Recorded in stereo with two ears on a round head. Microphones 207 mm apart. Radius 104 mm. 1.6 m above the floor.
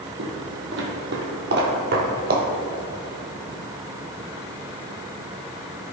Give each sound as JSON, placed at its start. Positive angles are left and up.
{"t": 0.2, "sound": "footsteps", "side_deg": -50, "distance_m": 3.0}